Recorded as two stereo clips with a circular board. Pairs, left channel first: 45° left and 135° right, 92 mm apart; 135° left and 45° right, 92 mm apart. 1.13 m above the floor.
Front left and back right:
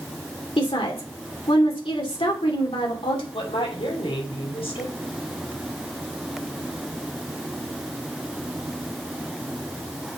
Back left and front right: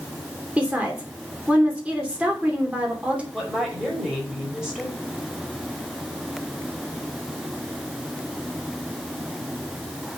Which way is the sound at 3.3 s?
40° left.